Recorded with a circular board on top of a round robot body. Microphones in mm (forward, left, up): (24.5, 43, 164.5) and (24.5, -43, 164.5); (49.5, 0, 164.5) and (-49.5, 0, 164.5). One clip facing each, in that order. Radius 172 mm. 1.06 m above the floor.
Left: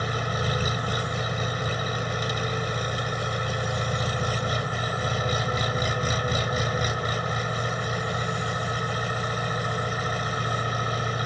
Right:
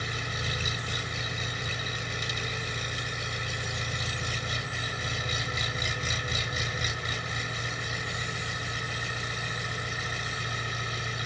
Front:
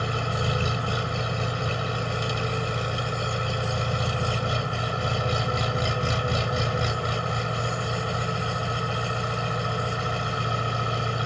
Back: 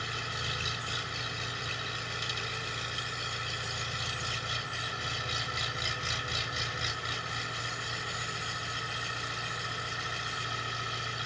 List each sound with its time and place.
0.0 s an engine running: 45° left